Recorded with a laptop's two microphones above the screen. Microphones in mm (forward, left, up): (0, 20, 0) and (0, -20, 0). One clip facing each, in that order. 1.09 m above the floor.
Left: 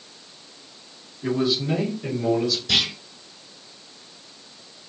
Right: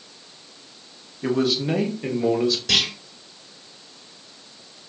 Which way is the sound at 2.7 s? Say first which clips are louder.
Left 2 dB; 70° right (ahead or behind).